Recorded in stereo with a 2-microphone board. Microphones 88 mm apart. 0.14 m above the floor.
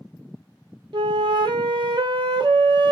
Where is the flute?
70° right (ahead or behind), 0.5 m.